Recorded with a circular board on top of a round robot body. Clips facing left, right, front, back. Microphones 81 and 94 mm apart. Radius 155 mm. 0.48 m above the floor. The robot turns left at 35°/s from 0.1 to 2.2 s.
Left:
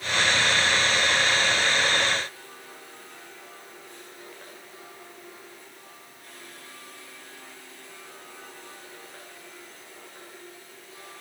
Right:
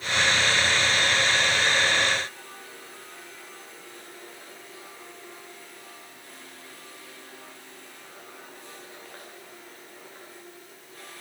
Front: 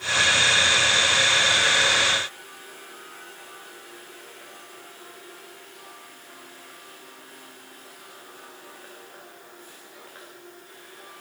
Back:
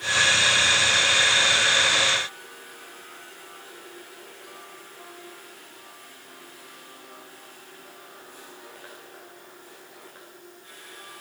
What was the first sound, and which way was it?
Only background noise.